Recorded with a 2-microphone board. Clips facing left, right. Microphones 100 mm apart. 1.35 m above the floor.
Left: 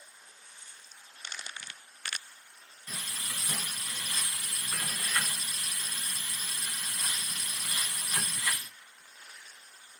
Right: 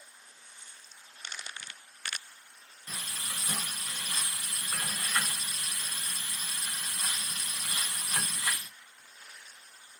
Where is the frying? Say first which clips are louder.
Even; 30° right (ahead or behind), 1.4 m.